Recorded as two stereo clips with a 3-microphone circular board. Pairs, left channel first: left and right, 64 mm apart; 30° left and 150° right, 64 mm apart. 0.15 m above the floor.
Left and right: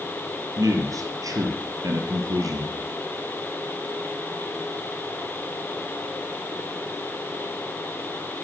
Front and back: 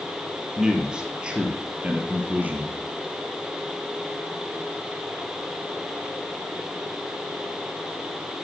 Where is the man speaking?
70° right, 4 m; by 2.8 s 95° right, 3 m.